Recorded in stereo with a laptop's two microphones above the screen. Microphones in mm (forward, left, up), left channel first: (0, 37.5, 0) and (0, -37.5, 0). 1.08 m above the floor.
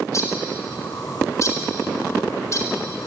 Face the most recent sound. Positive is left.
turn(degrees=45)  # may be behind; listen again after turning